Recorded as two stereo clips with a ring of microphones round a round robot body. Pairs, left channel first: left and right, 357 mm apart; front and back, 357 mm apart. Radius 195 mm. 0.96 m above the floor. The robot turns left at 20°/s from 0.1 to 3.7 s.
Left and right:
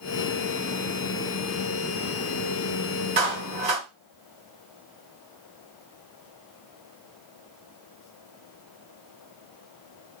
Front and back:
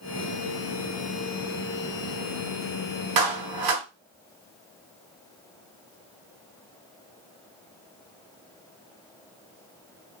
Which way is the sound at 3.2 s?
155° right.